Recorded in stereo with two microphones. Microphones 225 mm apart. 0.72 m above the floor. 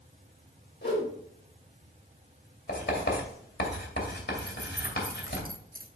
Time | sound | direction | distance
0.8 | a whoosh | 55° left (ahead or behind) | 3.5 m
2.7 | writing | 50° left (ahead or behind) | 2.5 m
4.4 | keys jangling | 40° right (ahead or behind) | 0.8 m